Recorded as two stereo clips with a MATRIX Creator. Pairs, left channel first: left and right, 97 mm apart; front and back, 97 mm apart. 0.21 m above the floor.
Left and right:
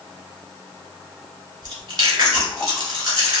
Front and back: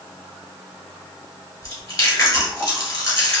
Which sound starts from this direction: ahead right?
Chewing, at 1.6 s.